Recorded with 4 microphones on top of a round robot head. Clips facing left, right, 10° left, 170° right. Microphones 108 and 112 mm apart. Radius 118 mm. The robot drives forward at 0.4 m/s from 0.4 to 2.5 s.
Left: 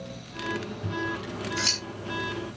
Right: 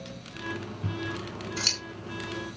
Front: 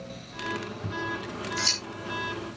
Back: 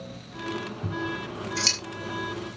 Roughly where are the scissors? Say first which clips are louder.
Left 1 dB, back 3 dB; behind right.